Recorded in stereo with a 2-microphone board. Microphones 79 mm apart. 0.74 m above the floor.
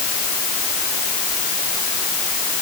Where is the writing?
I don't hear writing.